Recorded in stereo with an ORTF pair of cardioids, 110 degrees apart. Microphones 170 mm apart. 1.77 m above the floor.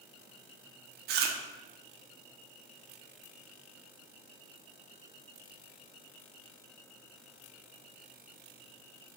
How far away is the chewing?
About 0.5 m.